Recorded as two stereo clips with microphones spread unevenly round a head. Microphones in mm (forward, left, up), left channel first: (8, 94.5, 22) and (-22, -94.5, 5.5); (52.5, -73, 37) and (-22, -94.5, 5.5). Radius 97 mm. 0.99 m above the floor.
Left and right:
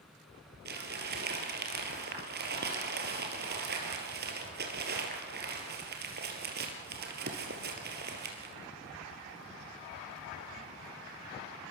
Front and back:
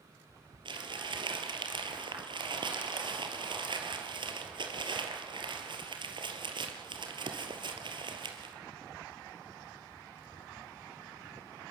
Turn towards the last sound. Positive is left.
turn(degrees=-140)